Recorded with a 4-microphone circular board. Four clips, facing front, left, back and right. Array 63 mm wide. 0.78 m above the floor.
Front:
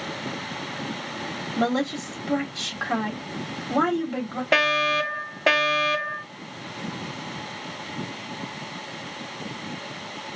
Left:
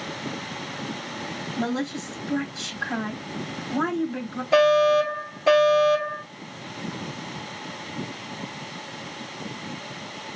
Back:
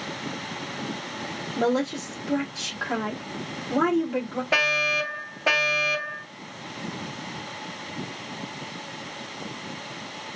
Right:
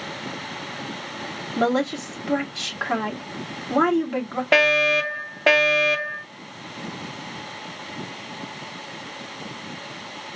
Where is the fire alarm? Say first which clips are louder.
Left 2 dB, front 3 dB; 65° right, 3 m.